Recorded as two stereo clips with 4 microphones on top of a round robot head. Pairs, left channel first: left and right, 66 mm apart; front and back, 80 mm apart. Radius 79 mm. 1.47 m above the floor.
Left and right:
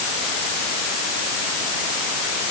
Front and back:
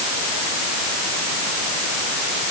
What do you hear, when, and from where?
Only background noise.